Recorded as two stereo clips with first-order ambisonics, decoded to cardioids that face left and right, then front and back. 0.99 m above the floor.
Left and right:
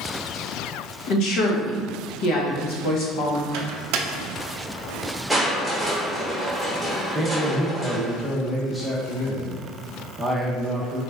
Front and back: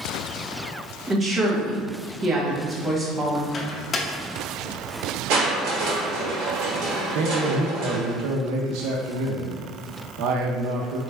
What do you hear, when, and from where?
1.1 s a woman speaking: 110° left, 1.0 m
3.5 s a microwave: 70° right, 0.5 m
5.3 s crushing: 175° left, 1.2 m
7.2 s a man speaking: 175° right, 0.6 m